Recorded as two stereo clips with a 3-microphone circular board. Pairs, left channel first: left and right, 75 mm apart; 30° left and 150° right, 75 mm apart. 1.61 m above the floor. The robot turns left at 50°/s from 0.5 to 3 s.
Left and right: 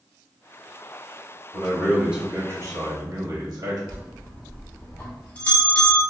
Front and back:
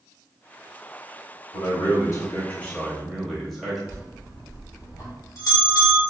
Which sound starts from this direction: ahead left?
A bell, at 3.9 s.